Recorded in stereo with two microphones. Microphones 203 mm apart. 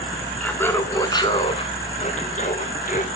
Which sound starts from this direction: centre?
Laughter, at 0.4 s.